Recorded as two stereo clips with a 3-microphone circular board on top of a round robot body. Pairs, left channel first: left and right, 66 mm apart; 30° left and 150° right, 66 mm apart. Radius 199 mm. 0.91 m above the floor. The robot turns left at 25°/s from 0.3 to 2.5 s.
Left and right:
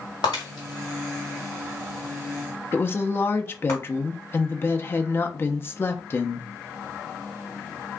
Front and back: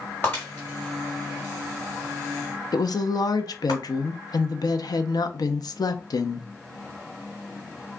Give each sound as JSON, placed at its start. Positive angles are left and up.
{"t": 0.2, "sound": "breaking glass", "azimuth_deg": 100, "distance_m": 1.2}
{"t": 2.7, "sound": "a woman speaking", "azimuth_deg": 35, "distance_m": 0.7}